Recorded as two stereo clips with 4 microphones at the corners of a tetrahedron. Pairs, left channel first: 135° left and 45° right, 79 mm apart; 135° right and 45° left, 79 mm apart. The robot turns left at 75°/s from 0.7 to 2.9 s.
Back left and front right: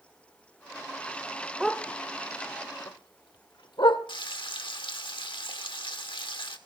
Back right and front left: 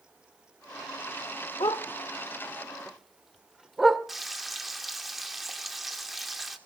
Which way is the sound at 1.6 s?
130° right.